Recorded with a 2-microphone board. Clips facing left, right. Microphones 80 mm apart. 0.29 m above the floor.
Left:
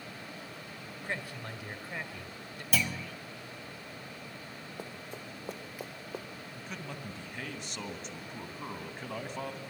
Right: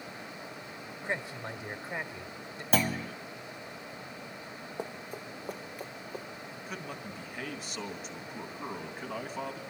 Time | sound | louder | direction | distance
1.0 | a man speaking | right 3 dB | 20° right (ahead or behind) | 1.6 m
2.7 | a clunk | right 5 dB | 40° right (ahead or behind) | 0.8 m
4.8 | running footsteps | right 5 dB | 20° right (ahead or behind) | 1.5 m
6.5 | a man speaking | right 1 dB | 5° right (ahead or behind) | 2.5 m